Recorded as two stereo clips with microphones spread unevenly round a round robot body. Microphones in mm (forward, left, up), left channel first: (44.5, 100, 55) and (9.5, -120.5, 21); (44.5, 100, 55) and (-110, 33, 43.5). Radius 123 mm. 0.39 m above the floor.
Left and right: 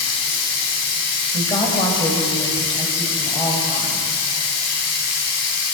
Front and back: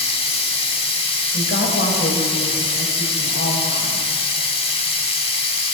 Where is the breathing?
No breathing in this recording.